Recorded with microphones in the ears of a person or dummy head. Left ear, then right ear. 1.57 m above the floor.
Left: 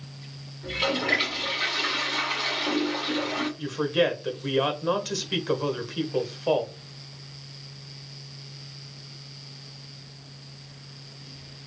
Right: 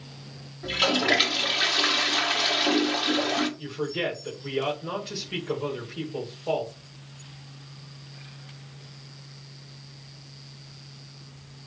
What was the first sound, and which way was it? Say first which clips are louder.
A toilet flushing: right 3 dB; 40° right (ahead or behind).